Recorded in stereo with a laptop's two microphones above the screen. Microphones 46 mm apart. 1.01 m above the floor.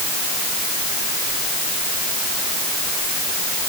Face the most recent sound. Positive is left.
No sound to turn to.